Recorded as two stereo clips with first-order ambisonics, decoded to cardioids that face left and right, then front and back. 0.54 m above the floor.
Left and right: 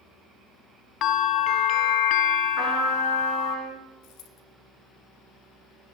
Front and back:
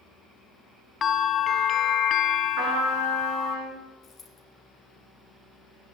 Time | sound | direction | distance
1.0 | a bell | 60° left | 0.5 m
2.6 | a trumpet | 160° right | 6 m
4.0 | a dropped coin | 65° left | 2 m